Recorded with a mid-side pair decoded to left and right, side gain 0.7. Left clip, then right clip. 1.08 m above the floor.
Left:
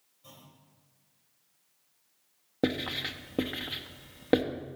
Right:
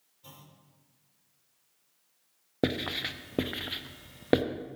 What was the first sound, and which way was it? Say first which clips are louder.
A clunk: right 1 dB; 45° right.